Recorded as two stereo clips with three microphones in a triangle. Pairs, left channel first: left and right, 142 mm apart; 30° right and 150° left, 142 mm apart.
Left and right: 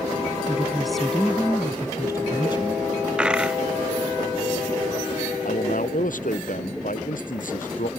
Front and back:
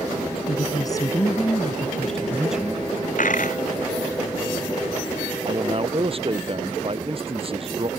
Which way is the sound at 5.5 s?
105° left.